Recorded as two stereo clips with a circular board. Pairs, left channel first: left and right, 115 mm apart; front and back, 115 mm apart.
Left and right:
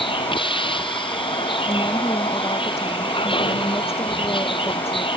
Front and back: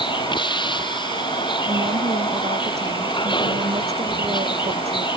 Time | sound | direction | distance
0.0 | a vehicle | 50° left | ?
1.6 | a woman speaking | 155° left | ?